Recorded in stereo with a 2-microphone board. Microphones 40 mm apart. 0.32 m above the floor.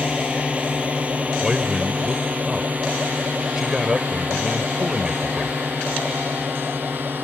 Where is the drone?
30° right (ahead or behind); by 7.2 s 55° right (ahead or behind).